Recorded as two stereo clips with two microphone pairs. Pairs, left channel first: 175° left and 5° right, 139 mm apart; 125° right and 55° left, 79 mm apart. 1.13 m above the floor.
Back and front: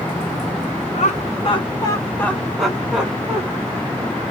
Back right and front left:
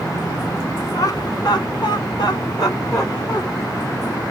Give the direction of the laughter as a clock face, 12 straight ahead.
5 o'clock.